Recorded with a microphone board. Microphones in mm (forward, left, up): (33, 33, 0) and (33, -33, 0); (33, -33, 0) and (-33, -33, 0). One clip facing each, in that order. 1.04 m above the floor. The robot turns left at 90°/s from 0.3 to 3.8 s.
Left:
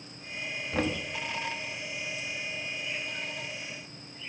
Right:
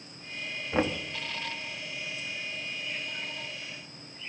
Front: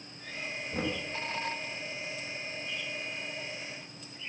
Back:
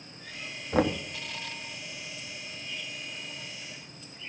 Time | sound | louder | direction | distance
0.7 | knocking | right 2 dB, back 9 dB | 155° right | 1.1 m